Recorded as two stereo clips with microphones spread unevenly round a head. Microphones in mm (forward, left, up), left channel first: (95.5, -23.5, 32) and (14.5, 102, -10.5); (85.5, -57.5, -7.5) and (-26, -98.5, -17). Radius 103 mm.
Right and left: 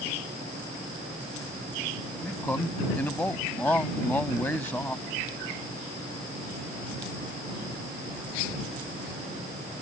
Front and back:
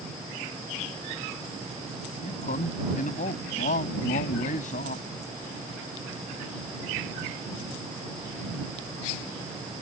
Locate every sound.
2.2 s a man speaking: 20° left